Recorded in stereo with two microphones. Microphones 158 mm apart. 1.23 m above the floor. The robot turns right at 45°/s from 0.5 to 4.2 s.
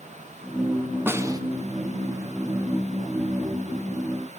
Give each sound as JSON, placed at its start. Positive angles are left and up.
{"t": 1.1, "sound": "a snare drum", "side_deg": -15, "distance_m": 1.6}